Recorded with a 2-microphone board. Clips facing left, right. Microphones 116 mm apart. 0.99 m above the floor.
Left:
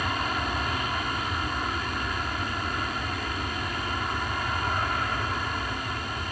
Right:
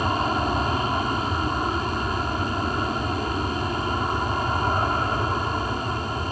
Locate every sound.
0.0 s an aircraft: 30° right (ahead or behind)